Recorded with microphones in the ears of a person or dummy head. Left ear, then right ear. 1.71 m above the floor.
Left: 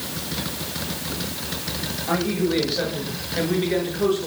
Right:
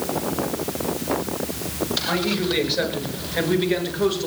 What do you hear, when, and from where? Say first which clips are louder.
2.1 s a man speaking: left 3 dB; 25° right (ahead or behind), 8.5 m; by 4.3 s 30° right (ahead or behind), 7 m